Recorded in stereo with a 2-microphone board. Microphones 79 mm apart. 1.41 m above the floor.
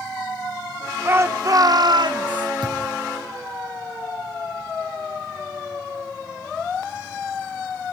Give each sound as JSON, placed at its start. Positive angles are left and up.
{"t": 1.1, "sound": "a shout", "side_deg": -25, "distance_m": 1.4}
{"t": 2.6, "sound": "a thud", "side_deg": -75, "distance_m": 6.5}